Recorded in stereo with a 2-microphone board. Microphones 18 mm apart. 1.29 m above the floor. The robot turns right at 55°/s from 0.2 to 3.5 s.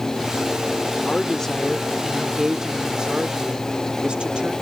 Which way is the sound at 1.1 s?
130° left.